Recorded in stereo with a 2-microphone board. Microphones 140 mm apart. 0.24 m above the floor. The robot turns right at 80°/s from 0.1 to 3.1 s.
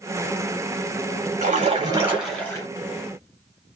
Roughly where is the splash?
Right.